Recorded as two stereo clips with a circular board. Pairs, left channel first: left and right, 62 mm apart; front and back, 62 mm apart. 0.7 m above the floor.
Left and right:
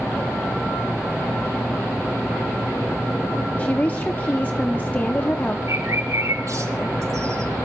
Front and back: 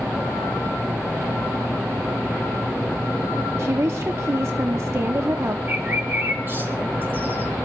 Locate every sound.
3.6 s a woman speaking: 150° left, 0.8 m
5.7 s a bird: 125° right, 3.5 m